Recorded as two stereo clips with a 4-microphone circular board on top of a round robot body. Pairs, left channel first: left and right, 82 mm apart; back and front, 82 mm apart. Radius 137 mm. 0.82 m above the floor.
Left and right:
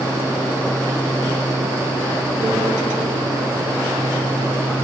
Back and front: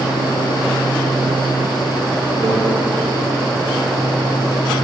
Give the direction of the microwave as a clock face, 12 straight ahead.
1 o'clock.